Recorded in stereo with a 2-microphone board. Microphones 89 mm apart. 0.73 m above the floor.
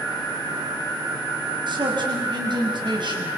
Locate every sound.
1.7 s a man speaking: 60° right (ahead or behind), 6 m